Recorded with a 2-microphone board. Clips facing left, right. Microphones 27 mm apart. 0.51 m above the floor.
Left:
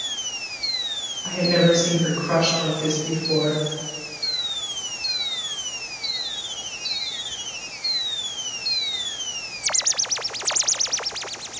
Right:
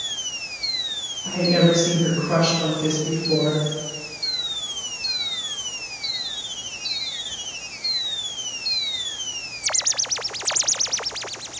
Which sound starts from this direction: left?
A woman speaking, at 1.2 s.